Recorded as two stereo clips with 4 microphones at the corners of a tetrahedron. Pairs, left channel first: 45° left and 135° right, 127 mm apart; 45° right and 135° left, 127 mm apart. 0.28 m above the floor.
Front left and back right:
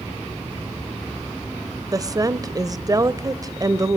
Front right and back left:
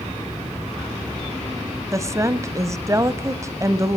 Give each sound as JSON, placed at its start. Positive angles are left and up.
{"t": 1.9, "sound": "a woman speaking", "azimuth_deg": 180, "distance_m": 1.1}